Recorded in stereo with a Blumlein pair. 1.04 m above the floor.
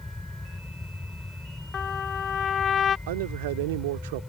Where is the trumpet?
25° left.